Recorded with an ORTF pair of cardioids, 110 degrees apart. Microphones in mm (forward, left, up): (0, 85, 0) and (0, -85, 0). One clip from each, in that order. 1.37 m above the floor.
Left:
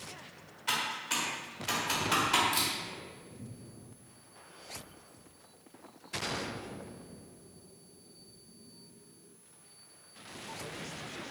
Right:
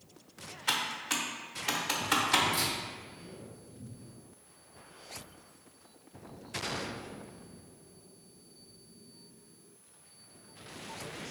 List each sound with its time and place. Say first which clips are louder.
0.7 s typing on a keyboard: right 1 dB; 20° right, 0.6 m
2.5 s a camera shutter: even; 70° left, 1.4 m